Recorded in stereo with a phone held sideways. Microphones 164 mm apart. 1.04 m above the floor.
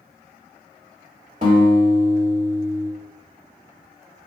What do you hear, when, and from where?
1.4 s a guitar: 55° right (ahead or behind), 1.7 m